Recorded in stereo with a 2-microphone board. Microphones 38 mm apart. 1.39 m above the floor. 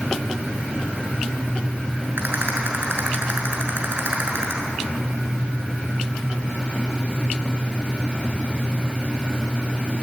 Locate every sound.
2.2 s a rattle: 65° right (ahead or behind), 6.5 m